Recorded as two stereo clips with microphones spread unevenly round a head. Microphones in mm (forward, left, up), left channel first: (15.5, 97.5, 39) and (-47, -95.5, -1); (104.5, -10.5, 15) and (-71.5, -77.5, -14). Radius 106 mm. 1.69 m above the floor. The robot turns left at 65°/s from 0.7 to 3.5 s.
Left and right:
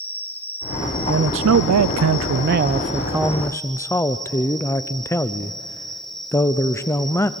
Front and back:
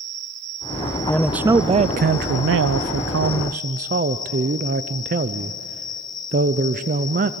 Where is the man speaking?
55° right, 0.5 m; by 7.3 s 145° left, 0.5 m.